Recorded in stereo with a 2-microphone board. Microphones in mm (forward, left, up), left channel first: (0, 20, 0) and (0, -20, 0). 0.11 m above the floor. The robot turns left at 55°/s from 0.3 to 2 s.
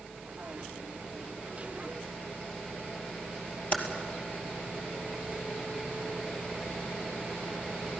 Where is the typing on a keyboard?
35° left (ahead or behind), 2.5 m.